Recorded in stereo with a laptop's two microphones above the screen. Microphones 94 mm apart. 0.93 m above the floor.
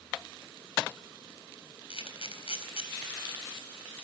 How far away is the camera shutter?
About 4 m.